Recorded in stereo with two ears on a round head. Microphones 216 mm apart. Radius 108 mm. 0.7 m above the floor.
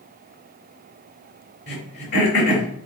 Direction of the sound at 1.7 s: 40° left (ahead or behind).